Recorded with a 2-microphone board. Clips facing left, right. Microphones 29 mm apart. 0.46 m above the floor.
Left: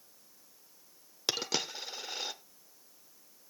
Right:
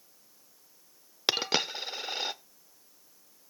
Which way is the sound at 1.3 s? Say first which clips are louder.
Right 5 dB; 35° right (ahead or behind).